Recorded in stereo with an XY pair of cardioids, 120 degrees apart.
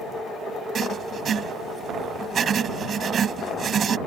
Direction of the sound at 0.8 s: 45° right.